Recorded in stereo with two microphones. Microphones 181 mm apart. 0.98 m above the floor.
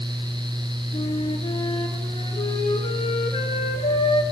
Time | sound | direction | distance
0.9 | a flute | 30° left (ahead or behind) | 5.5 m